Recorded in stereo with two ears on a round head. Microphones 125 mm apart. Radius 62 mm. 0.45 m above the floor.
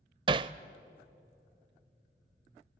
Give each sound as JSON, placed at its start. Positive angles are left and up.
{"t": 0.3, "sound": "hammering", "side_deg": -35, "distance_m": 0.5}